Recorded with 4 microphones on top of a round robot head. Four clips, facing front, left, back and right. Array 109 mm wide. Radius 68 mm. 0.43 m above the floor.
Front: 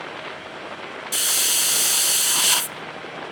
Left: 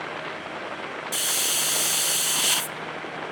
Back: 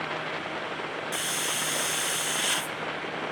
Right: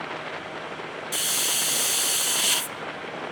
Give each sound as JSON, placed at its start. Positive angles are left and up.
{"t": 1.1, "sound": "a hiss", "azimuth_deg": -5, "distance_m": 0.8}